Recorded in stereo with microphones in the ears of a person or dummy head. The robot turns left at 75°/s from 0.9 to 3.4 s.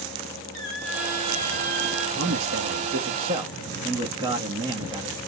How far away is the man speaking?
About 1.6 m.